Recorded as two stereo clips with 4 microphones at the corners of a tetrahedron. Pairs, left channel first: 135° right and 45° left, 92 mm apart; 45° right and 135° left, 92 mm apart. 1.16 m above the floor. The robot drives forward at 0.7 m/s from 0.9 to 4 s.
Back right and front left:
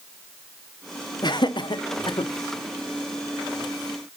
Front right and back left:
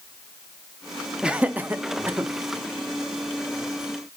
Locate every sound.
1.2 s laughter: 145° right, 0.8 m; by 2.3 s 165° right, 1.4 m